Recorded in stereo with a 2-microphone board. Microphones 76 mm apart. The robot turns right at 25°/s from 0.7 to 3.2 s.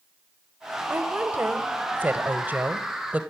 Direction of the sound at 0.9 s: 25° right (ahead or behind).